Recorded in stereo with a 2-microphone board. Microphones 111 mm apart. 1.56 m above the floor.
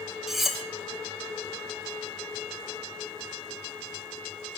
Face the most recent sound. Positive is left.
turn(degrees=0)  # may be behind; listen again after turning